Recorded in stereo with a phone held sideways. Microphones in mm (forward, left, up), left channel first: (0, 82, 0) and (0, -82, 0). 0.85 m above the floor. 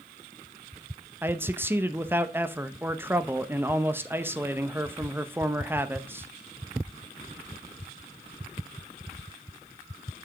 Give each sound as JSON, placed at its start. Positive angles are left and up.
{"t": 1.2, "sound": "a man speaking", "side_deg": -15, "distance_m": 0.7}